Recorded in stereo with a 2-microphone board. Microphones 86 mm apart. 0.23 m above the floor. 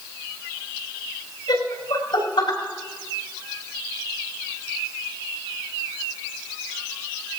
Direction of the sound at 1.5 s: 70° left (ahead or behind).